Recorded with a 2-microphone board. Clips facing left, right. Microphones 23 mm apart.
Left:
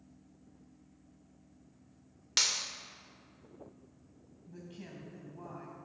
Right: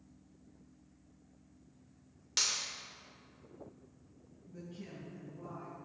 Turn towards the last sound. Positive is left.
turn(degrees=65)  # may be behind; listen again after turning